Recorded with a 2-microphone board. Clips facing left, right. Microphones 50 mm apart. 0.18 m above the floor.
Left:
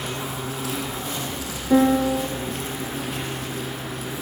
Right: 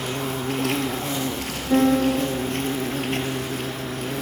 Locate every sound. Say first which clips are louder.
0.0 s an insect: right 3 dB; 55° right (ahead or behind), 4 m
1.7 s a piano: left 1 dB; 5° left (ahead or behind), 1.1 m